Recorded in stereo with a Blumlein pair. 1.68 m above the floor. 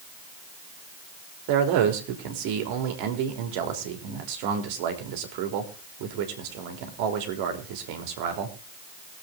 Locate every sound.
1.5 s a man speaking: 45° right, 3.5 m